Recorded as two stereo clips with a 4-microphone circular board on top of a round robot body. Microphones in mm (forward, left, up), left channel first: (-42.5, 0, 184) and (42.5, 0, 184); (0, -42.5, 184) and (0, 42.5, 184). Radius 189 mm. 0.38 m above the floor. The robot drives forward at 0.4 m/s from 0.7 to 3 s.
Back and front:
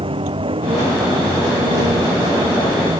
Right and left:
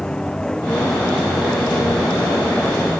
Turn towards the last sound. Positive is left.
turn(degrees=-10)